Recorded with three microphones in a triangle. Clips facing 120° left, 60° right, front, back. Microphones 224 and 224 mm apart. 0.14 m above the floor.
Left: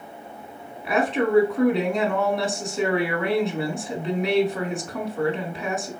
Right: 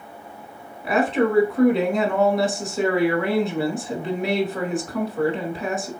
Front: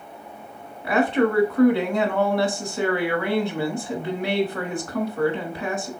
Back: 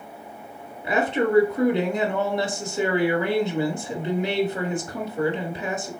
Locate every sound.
0.8 s a woman speaking: 150° right, 1.1 m